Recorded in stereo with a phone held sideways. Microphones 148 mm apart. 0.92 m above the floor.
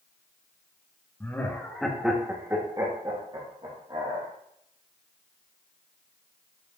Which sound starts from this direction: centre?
Laughter, at 1.2 s.